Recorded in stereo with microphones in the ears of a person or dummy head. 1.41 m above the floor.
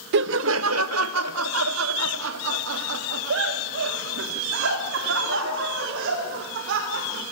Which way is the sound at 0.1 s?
65° right (ahead or behind).